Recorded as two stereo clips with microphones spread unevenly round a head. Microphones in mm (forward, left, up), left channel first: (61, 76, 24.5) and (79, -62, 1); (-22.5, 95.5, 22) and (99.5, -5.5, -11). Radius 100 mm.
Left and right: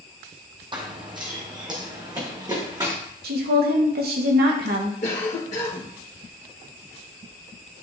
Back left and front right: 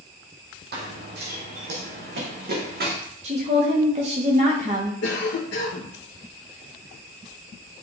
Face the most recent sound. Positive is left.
turn(degrees=155)